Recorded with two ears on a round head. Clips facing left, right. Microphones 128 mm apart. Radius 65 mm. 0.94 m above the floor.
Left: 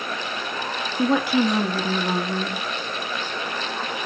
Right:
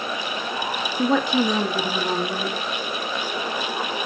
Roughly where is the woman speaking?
Centre.